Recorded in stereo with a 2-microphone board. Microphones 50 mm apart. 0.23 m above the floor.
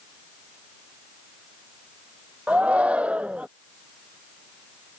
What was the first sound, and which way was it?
A shout, 30° right (ahead or behind).